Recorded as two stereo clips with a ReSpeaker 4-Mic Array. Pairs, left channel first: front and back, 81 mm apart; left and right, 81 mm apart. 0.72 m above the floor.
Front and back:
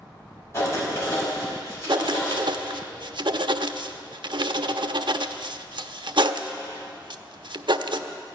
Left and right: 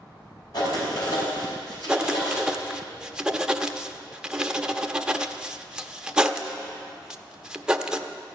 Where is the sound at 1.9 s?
170° right, 0.5 m.